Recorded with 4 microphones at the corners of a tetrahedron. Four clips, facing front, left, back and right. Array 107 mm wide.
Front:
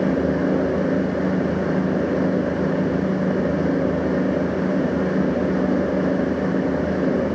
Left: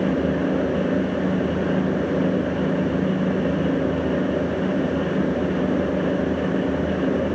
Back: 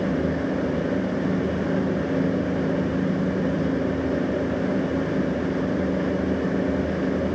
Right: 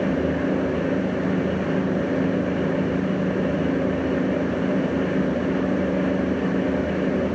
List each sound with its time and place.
Only background noise.